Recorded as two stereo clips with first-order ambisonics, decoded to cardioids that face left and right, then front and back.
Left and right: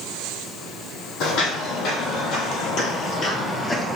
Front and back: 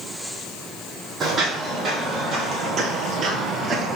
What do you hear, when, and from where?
1.2 s footsteps: 110° left, 2.0 m; by 4.0 s 175° left, 0.9 m